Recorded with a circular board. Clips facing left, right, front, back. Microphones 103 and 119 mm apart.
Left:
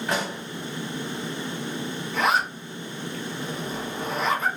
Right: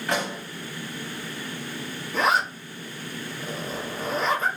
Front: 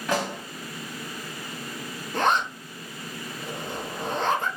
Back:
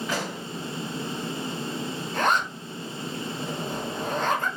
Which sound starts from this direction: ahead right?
A zipper, at 2.1 s.